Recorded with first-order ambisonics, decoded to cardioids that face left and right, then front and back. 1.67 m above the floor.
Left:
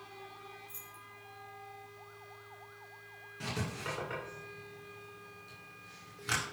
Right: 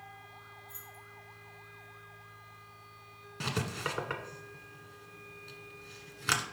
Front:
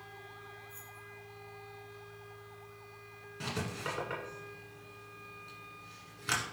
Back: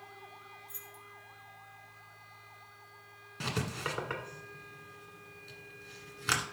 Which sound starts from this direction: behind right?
Writing, at 3.4 s.